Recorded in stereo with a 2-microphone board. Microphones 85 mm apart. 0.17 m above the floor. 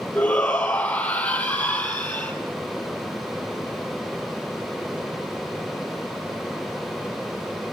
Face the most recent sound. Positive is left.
turn(degrees=15)  # may be behind; listen again after turning